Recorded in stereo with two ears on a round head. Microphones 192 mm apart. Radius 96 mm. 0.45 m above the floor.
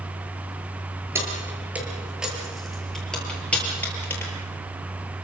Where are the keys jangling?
10° right (ahead or behind), 6.5 m; by 4.3 s 10° left (ahead or behind), 8.5 m.